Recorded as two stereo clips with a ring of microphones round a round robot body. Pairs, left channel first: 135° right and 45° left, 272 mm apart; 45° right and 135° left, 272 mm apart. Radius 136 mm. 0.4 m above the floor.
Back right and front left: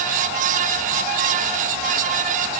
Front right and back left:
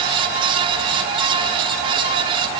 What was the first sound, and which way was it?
Only background noise.